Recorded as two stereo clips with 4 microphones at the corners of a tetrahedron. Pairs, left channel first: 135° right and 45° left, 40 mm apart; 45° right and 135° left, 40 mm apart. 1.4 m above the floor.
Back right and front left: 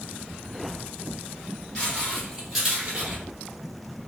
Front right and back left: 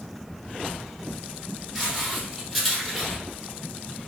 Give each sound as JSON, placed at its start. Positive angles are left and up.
{"t": 1.8, "sound": "footsteps", "azimuth_deg": -150, "distance_m": 1.5}